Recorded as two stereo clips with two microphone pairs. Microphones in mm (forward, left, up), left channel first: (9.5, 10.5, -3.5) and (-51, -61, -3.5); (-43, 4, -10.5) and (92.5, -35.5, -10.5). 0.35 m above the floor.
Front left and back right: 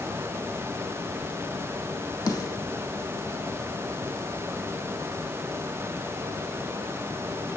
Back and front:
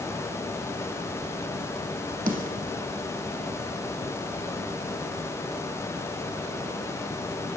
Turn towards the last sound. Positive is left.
turn(degrees=0)